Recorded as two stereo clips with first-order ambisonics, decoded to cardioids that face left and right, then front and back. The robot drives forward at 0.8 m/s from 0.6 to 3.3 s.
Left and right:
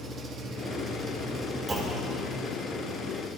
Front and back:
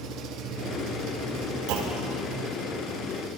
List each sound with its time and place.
0.0 s an engine running: 155° right, 1.2 m; by 3.4 s 170° right, 3.5 m
1.7 s a clunk: 165° right, 1.5 m; by 2.2 s 170° right, 1.9 m